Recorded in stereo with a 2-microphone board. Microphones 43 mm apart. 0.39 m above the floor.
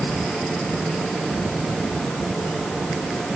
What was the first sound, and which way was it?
Only background noise.